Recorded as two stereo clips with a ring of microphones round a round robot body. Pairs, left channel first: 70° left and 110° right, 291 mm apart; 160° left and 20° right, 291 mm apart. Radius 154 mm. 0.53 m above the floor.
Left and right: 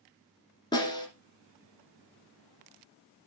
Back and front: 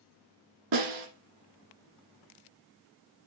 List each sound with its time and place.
0.7 s a snare drum: 10° right, 2 m